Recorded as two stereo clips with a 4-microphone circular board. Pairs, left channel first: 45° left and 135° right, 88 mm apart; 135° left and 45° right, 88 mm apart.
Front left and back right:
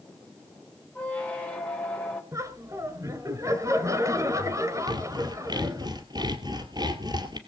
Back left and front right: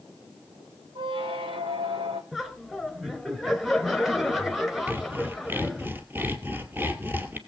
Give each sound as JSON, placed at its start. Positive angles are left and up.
{"t": 0.9, "sound": "a squeak", "azimuth_deg": -30, "distance_m": 3.0}
{"t": 2.3, "sound": "laughter", "azimuth_deg": -130, "distance_m": 2.0}
{"t": 4.9, "sound": "sawing", "azimuth_deg": -110, "distance_m": 2.0}